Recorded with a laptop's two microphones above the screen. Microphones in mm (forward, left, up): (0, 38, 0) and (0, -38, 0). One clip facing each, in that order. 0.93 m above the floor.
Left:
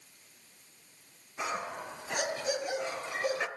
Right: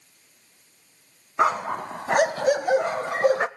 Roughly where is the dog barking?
Right.